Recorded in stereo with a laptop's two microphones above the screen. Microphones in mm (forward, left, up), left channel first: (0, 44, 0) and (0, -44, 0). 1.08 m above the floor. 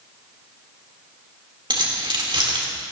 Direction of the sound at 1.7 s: 65° right (ahead or behind).